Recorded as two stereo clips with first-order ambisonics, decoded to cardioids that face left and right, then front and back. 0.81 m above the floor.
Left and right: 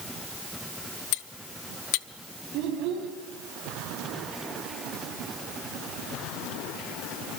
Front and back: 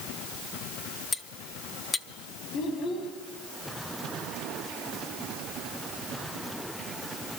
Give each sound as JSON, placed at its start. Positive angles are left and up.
{"t": 1.1, "sound": "cutlery clinking", "azimuth_deg": 80, "distance_m": 0.7}
{"t": 2.5, "sound": "a child speaking", "azimuth_deg": -50, "distance_m": 4.0}